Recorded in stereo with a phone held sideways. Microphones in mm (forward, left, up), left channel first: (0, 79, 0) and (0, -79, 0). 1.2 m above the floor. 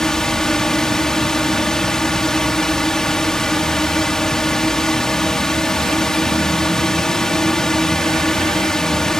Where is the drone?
5° left (ahead or behind).